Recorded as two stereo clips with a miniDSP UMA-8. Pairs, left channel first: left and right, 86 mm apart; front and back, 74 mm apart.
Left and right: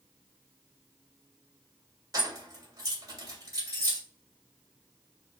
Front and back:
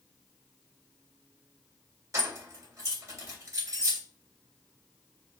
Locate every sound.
2.1 s keys jangling: 135° right, 1.6 m